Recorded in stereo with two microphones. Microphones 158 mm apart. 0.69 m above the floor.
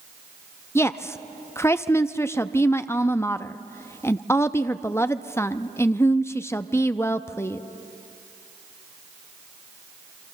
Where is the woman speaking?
15° left (ahead or behind), 0.6 m.